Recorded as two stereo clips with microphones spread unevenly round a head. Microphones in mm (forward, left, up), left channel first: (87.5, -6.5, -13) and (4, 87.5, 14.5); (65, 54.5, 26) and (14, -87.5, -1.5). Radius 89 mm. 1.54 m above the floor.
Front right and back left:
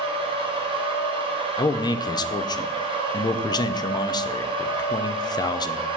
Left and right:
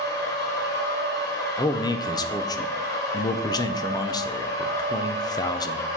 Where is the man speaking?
15° left, 0.6 m.